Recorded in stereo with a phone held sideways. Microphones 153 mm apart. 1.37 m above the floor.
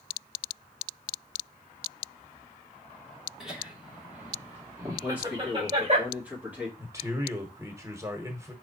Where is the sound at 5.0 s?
10° right (ahead or behind), 1.7 m.